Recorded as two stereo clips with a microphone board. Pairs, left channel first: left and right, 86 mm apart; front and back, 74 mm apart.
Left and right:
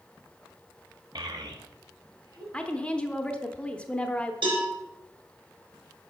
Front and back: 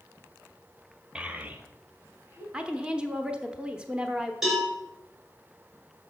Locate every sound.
1.1 s a child speaking: 105° right, 0.8 m; by 2.4 s 125° right, 2.0 m
2.5 s a woman speaking: 135° left, 0.7 m
4.4 s a cowbell: 95° right, 4 m